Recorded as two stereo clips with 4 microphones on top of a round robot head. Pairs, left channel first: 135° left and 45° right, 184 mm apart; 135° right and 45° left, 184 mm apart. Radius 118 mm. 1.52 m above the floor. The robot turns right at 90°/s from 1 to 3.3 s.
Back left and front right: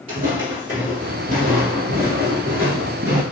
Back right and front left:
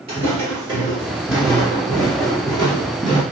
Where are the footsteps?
Straight ahead, 1.7 m; by 3.2 s 10° right, 1.8 m.